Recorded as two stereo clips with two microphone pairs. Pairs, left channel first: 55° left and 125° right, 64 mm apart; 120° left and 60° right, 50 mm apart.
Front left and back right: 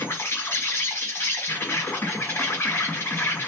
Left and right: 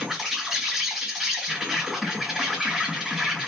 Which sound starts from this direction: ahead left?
An insect, at 0.0 s.